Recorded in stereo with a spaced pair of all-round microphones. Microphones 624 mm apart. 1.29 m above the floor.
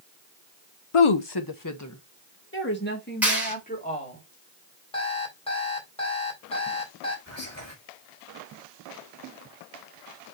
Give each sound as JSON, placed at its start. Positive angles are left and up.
{"t": 0.9, "sound": "a woman speaking", "side_deg": 60, "distance_m": 0.6}
{"t": 3.2, "sound": "a clap", "side_deg": 0, "distance_m": 4.0}
{"t": 4.9, "sound": "an alarm clock", "side_deg": 10, "distance_m": 3.0}
{"t": 7.3, "sound": "whispering", "side_deg": -25, "distance_m": 4.5}